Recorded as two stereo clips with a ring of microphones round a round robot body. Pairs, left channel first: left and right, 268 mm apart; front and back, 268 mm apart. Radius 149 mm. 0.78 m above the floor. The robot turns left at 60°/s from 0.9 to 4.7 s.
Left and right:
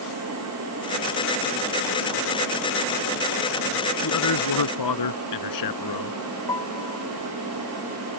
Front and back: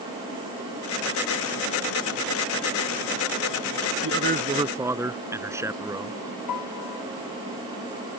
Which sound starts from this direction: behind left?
A man speaking, at 4.0 s.